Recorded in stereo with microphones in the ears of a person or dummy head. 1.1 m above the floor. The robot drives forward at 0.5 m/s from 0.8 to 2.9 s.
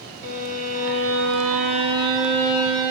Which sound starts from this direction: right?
A violin, at 0.2 s.